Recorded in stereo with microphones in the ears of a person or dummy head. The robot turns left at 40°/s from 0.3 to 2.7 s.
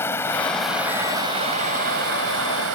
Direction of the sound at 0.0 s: 10° left.